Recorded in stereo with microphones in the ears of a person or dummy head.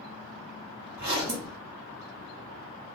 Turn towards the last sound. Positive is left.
turn(degrees=-15)  # may be behind; listen again after turning